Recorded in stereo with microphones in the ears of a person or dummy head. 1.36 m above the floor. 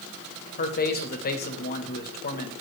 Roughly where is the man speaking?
Left.